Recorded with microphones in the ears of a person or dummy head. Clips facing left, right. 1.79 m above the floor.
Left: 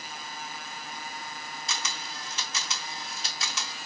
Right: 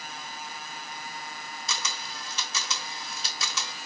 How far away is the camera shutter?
About 0.7 m.